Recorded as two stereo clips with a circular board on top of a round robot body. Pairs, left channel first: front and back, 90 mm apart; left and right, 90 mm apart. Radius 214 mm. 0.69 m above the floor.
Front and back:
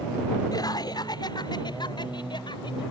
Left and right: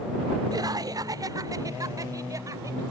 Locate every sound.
0.5 s laughter: 45° right; by 2.8 s 35° right